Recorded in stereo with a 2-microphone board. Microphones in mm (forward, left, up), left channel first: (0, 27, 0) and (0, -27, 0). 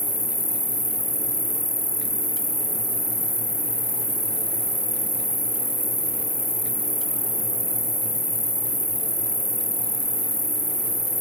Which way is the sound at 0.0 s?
70° left (ahead or behind).